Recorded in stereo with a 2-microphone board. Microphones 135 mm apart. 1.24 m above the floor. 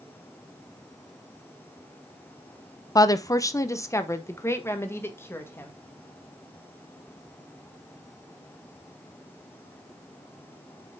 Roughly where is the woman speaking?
Left.